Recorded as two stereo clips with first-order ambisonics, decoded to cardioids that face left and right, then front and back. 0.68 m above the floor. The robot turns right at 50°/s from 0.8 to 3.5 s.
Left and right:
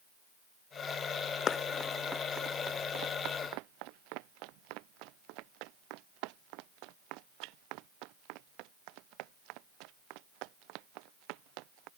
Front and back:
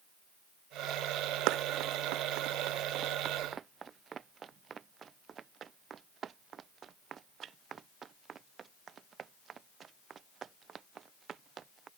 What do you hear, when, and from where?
1.5 s running footsteps: 155° left; by 11.9 s 115° right